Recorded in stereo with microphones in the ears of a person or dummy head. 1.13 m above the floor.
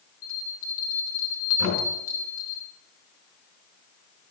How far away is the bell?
About 1.1 m.